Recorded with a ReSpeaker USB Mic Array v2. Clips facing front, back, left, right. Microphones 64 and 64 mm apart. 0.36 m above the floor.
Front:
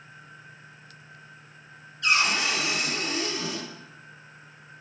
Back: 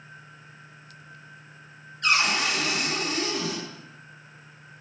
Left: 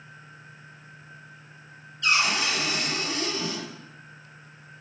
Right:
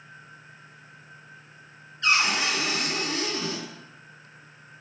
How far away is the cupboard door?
About 1.0 m.